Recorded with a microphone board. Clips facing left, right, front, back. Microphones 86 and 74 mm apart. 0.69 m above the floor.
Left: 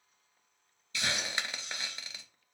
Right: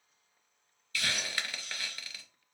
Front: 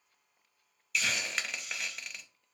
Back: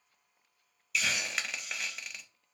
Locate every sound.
0.9 s a hiss: 90° left, 0.5 m